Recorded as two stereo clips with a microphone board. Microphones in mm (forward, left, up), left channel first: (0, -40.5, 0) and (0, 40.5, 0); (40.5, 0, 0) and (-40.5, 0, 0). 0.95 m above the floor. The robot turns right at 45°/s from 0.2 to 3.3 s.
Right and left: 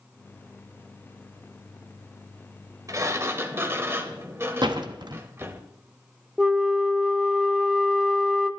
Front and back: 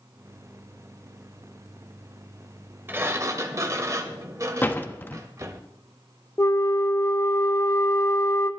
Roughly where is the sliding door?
Behind left.